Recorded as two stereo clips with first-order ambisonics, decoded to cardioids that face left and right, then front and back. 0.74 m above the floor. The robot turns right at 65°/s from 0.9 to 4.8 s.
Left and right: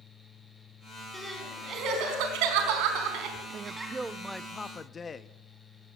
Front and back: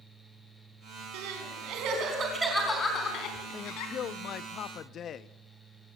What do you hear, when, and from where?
1.1 s crying: 175° left, 4.5 m; by 3.9 s straight ahead, 4.5 m
3.5 s a man speaking: 50° right, 0.7 m; by 5.3 s 35° left, 0.7 m